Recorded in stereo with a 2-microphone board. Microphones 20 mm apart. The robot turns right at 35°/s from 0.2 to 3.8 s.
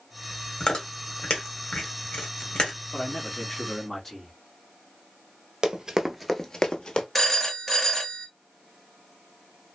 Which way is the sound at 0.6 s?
50° left (ahead or behind).